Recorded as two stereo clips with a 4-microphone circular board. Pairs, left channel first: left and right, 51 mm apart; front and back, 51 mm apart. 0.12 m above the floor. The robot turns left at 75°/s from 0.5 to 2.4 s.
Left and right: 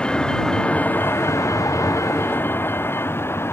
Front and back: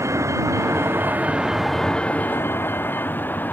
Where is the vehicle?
160° left; by 3.5 s 55° left.